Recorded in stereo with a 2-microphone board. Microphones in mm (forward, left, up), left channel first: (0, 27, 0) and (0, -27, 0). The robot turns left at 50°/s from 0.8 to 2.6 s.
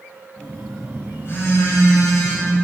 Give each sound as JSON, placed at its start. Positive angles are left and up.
{"t": 0.4, "sound": "a phone buzzing", "azimuth_deg": 155, "distance_m": 4.5}